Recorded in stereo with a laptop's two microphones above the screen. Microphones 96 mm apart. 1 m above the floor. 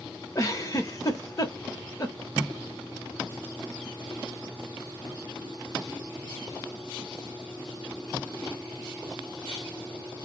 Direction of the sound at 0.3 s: 35° left (ahead or behind).